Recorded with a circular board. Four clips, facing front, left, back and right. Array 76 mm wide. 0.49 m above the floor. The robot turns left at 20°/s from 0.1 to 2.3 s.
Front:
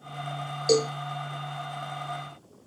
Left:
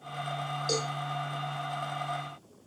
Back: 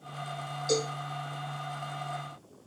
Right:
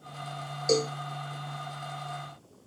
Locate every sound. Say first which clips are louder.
0.7 s a cowbell: right 8 dB, front 7 dB; 25° right, 2.5 m; by 0.9 s 30° right, 2.5 m